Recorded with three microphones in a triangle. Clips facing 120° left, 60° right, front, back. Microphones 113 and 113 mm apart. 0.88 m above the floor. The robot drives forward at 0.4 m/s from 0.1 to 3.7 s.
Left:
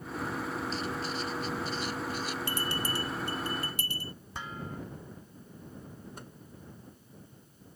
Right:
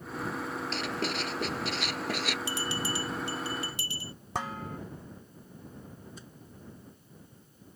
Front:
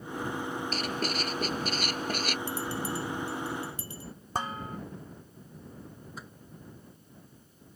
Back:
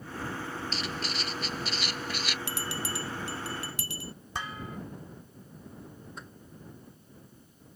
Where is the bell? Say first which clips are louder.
Even, front 3 dB; 160° left; by 4.1 s 165° left.